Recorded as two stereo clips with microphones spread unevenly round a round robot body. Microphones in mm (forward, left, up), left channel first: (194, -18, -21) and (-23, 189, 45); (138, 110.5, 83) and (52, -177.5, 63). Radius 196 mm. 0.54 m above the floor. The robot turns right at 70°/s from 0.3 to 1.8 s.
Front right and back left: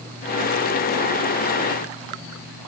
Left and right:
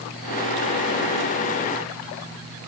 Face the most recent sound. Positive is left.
No sound to turn to.